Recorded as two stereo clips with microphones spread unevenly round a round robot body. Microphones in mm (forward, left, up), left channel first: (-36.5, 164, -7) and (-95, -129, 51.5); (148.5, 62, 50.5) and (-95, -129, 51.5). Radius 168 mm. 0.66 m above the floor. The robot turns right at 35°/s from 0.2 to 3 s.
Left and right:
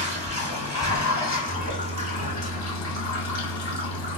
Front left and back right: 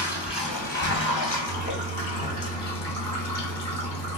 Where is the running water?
40° right, 1.7 m; by 4.2 s 60° left, 1.7 m.